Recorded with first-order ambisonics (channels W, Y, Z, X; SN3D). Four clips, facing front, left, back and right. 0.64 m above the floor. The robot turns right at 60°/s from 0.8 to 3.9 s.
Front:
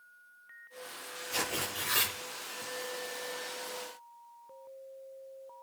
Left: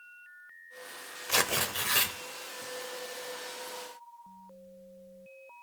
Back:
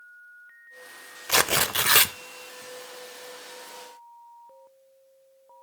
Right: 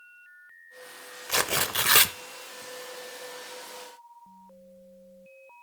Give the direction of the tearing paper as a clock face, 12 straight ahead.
6 o'clock.